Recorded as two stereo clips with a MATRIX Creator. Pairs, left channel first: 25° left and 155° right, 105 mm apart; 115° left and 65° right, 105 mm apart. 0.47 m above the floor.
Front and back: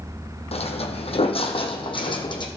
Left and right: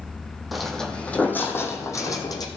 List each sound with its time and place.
0.5 s footsteps: 20° left, 1.3 m; by 2.5 s 60° left, 1.6 m